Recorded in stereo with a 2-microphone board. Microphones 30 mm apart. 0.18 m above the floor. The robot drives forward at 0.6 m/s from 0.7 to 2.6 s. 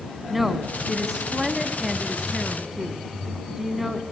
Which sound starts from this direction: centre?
A woman speaking, at 0.3 s.